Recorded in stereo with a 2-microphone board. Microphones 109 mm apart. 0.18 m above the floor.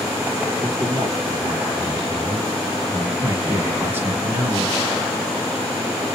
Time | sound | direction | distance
0.6 | a man speaking | 50° right (ahead or behind) | 2.5 m
3.2 | a man speaking | 20° right (ahead or behind) | 1.3 m